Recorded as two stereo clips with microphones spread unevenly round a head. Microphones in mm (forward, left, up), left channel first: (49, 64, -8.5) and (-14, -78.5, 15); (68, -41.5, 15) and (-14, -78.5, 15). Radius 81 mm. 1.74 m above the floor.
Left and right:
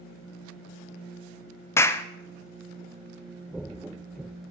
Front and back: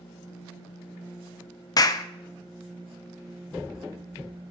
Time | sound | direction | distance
1.8 | a clap | 10° right | 0.9 m